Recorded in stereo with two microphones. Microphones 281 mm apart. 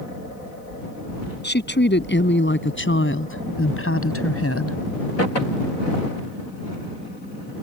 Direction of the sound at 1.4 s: 40° left (ahead or behind).